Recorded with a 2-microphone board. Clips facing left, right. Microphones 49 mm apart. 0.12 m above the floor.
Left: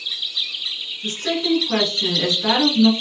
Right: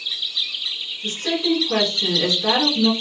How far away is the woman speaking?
About 1.7 m.